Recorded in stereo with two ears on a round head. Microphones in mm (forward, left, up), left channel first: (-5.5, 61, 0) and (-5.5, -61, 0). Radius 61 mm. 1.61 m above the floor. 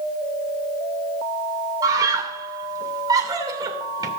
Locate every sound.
1.8 s a scream: 30° right (ahead or behind), 2.5 m